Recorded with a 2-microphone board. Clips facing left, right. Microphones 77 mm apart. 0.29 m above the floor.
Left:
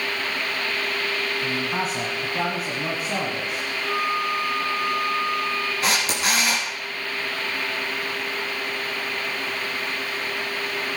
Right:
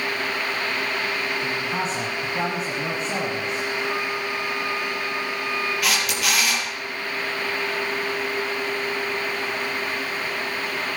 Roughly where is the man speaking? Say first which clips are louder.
Even; centre.